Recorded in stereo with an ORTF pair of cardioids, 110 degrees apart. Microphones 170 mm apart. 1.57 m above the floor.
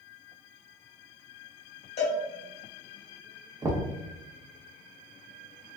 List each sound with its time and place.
2.0 s a cowbell: 40° left, 1.2 m
3.6 s knocking: 20° right, 0.5 m